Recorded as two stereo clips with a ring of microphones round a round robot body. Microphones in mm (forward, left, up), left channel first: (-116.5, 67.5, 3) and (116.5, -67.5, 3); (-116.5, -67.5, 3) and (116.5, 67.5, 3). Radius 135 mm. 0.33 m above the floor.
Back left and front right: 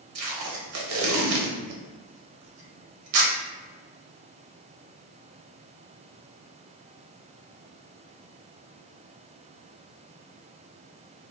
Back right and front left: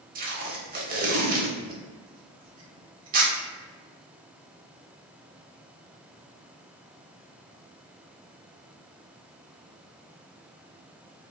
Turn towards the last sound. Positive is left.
turn(degrees=-25)